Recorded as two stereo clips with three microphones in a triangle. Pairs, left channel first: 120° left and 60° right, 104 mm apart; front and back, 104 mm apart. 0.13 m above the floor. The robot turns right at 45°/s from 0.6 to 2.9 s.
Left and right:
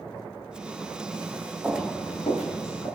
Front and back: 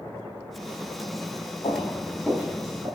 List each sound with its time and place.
1.6 s footsteps: 15° left, 0.6 m; by 2.9 s 145° left, 1.3 m